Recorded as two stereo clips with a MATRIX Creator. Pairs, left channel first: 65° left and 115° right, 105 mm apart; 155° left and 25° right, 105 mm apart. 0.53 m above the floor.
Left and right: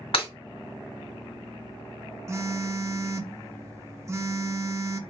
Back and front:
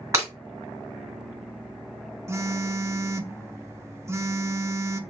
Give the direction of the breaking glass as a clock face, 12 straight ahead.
11 o'clock.